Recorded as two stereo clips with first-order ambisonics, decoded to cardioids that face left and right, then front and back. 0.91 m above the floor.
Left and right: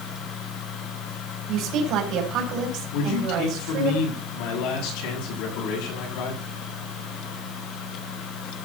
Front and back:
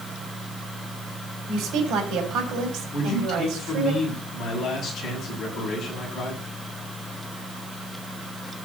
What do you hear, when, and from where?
1.5 s a woman speaking: 135° right, 4.5 m
2.9 s a man speaking: 65° left, 7.5 m